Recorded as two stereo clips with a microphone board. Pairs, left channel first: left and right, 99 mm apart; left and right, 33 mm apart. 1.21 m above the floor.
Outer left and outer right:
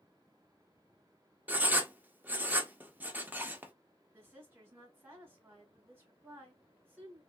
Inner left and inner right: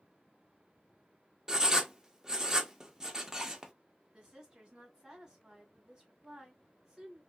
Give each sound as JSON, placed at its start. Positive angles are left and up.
{"t": 1.5, "sound": "writing", "side_deg": -20, "distance_m": 0.6}
{"t": 4.1, "sound": "a woman speaking", "side_deg": -20, "distance_m": 1.9}